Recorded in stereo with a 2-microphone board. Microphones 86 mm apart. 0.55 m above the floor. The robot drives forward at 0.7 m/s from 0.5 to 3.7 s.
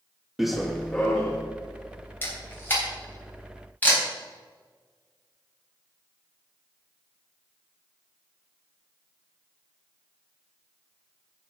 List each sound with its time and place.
0.4 s running footsteps: 5° right (ahead or behind), 1.1 m; by 1.4 s 15° left (ahead or behind), 3 m
2.2 s a camera shutter: 25° left (ahead or behind), 4 m; by 4.0 s 20° left (ahead or behind), 4.5 m